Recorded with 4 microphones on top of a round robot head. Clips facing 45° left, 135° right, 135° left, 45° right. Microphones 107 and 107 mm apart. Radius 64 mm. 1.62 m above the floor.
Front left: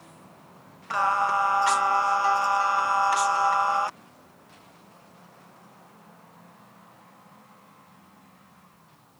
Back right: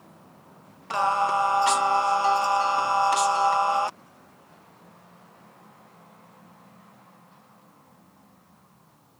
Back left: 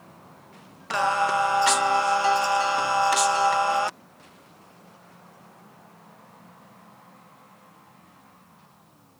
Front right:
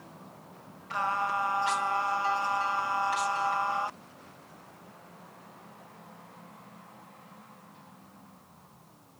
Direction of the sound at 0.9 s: 155° left.